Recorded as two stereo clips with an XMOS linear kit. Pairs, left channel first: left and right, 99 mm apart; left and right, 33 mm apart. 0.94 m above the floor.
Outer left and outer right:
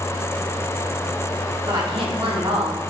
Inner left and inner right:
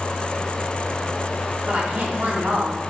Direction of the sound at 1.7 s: 50° right (ahead or behind).